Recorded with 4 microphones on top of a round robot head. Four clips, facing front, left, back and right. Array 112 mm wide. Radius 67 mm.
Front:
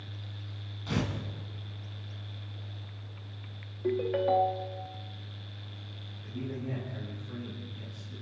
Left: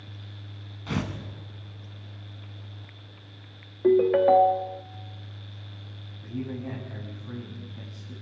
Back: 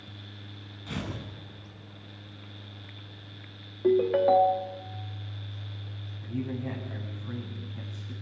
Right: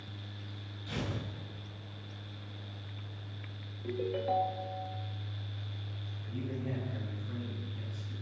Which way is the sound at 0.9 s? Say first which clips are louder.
Left 8 dB, front 4 dB; 75° left.